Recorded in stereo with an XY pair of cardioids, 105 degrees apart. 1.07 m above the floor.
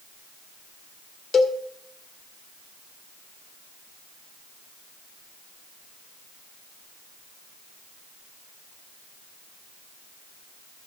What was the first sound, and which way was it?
A cowbell, 40° left.